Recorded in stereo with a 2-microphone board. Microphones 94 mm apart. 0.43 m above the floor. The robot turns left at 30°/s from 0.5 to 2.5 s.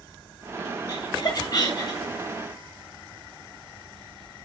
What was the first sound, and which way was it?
Laughter, 45° left (ahead or behind).